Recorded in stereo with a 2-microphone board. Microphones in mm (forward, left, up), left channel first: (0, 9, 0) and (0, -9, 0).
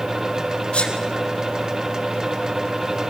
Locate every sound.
0.7 s a sneeze: 75° left (ahead or behind), 4 m